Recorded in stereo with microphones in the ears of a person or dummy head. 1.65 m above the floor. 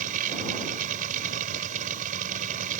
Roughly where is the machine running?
Right.